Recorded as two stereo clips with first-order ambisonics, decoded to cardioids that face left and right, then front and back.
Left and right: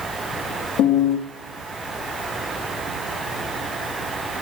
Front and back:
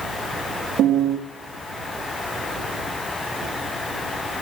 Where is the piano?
130° left, 1.4 m.